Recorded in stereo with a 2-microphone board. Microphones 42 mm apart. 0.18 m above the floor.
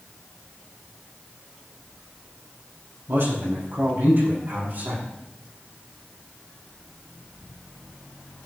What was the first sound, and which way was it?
A man speaking, 60° right (ahead or behind).